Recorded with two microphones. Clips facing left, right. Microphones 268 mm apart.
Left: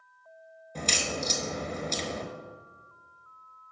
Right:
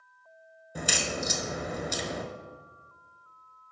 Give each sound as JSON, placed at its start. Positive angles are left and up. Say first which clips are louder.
{"t": 0.8, "sound": "a crack", "louder": "even", "side_deg": -10, "distance_m": 0.9}